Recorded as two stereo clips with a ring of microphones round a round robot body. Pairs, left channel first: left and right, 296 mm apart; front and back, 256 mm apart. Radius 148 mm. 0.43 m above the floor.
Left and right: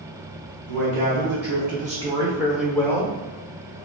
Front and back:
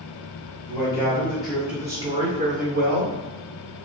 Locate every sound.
0.7 s a man speaking: 70° right, 1.0 m; by 3.1 s 160° left, 0.9 m